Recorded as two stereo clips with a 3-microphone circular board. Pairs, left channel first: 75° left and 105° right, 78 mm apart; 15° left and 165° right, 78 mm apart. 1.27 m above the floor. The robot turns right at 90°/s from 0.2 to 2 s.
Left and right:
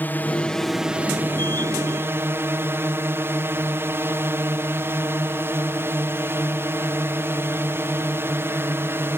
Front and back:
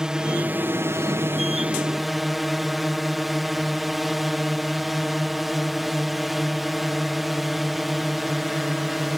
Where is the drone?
120° left; by 9.2 s 80° right.